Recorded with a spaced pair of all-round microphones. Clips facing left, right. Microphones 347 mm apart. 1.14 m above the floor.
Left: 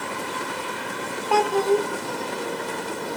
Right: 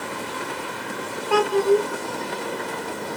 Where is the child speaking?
20° right (ahead or behind), 2 m.